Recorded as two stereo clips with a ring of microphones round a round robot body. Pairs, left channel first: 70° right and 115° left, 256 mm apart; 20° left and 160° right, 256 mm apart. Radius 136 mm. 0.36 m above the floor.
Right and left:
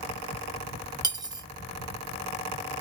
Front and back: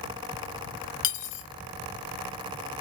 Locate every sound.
1.0 s cutlery clinking: 40° left, 0.9 m